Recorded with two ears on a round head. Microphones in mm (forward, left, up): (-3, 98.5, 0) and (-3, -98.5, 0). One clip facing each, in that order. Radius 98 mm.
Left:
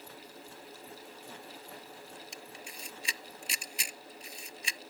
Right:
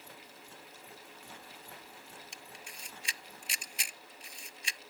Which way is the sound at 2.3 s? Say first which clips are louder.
Left 5 dB; 70° left (ahead or behind).